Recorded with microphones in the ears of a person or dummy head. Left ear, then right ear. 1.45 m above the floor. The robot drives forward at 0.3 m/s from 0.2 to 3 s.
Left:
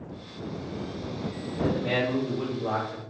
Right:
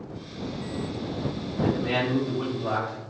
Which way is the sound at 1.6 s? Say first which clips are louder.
Right 1 dB; 10° left (ahead or behind).